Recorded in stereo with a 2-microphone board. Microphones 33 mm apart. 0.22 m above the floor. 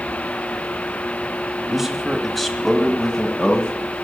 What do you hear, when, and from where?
1.7 s a man speaking: 10° right (ahead or behind), 1.5 m; by 4.0 s 45° left (ahead or behind), 2.0 m